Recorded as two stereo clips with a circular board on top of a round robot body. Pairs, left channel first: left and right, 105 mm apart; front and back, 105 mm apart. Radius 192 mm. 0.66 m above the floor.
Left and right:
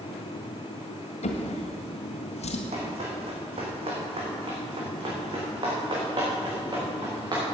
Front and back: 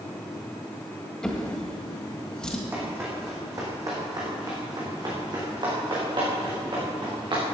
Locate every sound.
1.2 s a drawer: 85° left, 1.7 m
2.7 s running footsteps: 110° right, 3 m; by 7.4 s 140° right, 6 m